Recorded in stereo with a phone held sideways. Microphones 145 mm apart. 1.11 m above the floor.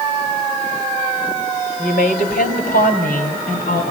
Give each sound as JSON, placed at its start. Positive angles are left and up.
{"t": 1.8, "sound": "a woman speaking", "side_deg": 85, "distance_m": 5.0}